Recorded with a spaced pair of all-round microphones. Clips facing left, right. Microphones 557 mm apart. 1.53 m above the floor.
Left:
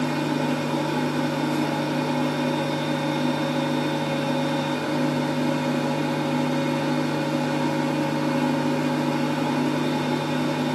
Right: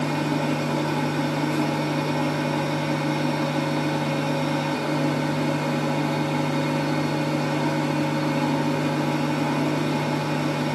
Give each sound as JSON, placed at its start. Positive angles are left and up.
{"t": 0.0, "sound": "a fan", "side_deg": -30, "distance_m": 1.0}